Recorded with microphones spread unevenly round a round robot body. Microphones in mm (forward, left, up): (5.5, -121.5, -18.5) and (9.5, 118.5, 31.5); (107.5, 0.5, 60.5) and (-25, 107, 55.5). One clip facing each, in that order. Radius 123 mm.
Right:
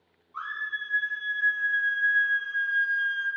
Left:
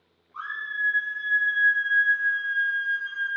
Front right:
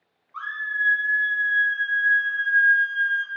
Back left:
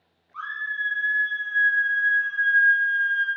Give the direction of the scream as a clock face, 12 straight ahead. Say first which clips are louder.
Left 2 dB, front right 2 dB; 1 o'clock.